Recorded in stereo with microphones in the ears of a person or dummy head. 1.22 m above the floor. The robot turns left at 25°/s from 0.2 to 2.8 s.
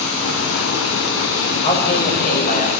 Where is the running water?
105° left, 3.5 m; by 2.8 s 40° left, 3.5 m.